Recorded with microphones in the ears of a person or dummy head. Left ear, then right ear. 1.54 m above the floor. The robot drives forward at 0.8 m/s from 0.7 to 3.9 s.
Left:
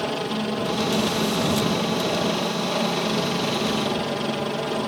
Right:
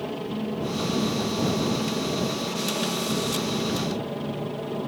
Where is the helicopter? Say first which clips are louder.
Left 6 dB; 50° left (ahead or behind); by 4.9 s 55° left (ahead or behind).